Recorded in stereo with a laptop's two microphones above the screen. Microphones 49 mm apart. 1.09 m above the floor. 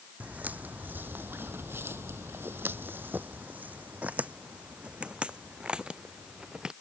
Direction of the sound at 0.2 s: 35° right (ahead or behind).